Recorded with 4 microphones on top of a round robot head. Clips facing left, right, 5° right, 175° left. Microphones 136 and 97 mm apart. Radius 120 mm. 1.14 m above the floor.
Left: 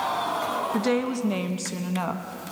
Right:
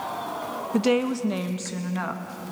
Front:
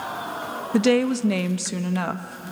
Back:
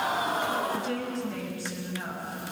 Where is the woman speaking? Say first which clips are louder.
Right 4 dB, front 12 dB; 15° right, 0.8 m; by 2.5 s 25° left, 1.4 m.